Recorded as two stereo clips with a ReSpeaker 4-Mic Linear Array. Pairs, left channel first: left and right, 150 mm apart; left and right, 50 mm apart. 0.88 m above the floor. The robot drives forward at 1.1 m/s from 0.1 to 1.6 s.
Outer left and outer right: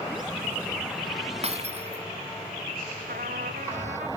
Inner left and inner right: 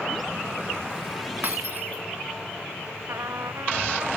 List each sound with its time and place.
1.4 s breaking glass: 45° right (ahead or behind)
3.1 s a trumpet: 80° right